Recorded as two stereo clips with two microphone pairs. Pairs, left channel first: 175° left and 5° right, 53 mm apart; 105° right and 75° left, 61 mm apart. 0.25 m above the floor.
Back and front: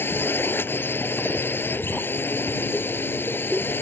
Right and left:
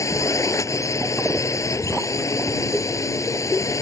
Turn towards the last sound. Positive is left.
turn(degrees=-135)